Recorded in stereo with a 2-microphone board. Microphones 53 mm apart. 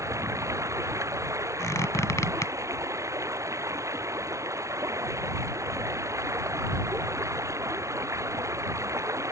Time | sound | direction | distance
0.0 | running water | 70° right (ahead or behind) | ?
1.6 | a squeak | 75° left (ahead or behind) | ?